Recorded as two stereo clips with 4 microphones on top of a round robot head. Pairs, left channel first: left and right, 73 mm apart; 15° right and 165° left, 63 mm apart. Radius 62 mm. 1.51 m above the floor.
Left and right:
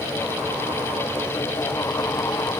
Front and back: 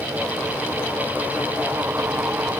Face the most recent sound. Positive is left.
No sound to turn to.